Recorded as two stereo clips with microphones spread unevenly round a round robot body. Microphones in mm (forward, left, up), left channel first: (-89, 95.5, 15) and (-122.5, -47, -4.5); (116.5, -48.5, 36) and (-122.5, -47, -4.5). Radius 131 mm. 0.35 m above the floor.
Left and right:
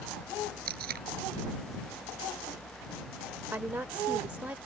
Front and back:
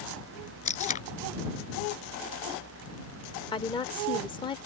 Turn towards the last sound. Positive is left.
turn(degrees=-65)